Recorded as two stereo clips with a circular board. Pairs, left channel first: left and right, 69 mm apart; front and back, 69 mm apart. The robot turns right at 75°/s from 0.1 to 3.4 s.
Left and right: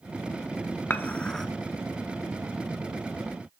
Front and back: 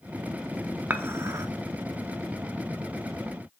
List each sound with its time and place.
0.9 s dishes clattering: 135° left, 0.7 m; by 1.5 s 175° left, 0.7 m